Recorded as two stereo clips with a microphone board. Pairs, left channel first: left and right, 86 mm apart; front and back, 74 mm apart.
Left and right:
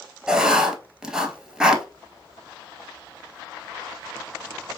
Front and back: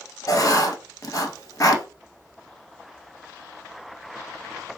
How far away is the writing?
About 1.2 m.